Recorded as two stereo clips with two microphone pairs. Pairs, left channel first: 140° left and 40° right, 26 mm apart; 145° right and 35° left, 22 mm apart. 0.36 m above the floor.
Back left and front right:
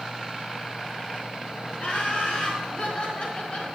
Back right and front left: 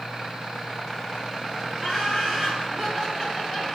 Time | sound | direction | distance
1.8 | laughter | 90° left | 4.5 m